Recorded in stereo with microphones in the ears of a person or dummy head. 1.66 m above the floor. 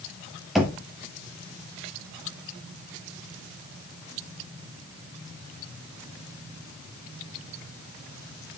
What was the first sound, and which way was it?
Knocking, centre (ahead or behind).